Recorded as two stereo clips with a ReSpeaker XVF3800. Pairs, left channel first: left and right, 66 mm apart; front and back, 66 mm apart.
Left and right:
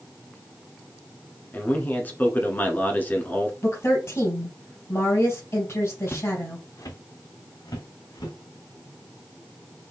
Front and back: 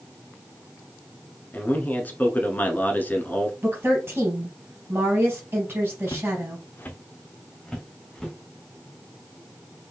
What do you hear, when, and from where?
1.5 s a man speaking: 45° left, 1.3 m
3.6 s a woman speaking: 125° left, 3.5 m
6.1 s footsteps: 20° left, 0.8 m; by 8.4 s 85° left, 3 m